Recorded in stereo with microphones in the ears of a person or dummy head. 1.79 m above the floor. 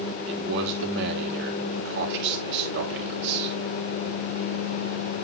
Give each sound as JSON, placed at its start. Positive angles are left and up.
{"t": 0.3, "sound": "a man speaking", "side_deg": -65, "distance_m": 3.0}